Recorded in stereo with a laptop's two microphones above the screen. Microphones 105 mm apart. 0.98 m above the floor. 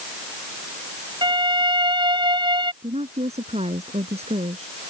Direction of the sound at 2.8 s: 85° right.